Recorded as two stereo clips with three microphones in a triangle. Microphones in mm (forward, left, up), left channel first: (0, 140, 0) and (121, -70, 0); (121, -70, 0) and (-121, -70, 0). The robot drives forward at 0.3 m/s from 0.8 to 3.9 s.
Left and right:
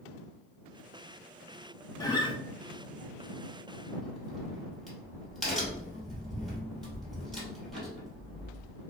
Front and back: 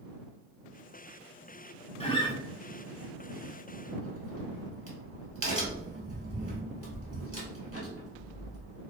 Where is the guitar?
50° left, 0.6 m; by 2.4 s 65° left, 0.5 m.